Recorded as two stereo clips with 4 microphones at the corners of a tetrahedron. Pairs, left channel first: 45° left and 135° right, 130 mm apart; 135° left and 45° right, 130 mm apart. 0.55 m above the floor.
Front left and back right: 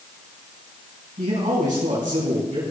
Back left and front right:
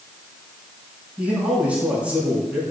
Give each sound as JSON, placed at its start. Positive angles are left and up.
{"t": 1.2, "sound": "a man speaking", "azimuth_deg": -125, "distance_m": 5.5}